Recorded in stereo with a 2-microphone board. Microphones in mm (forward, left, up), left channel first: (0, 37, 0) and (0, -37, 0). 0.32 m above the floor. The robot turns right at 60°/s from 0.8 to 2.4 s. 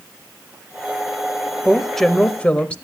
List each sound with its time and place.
1.6 s a woman speaking: 10° right, 1.0 m; by 2.8 s 35° left, 1.0 m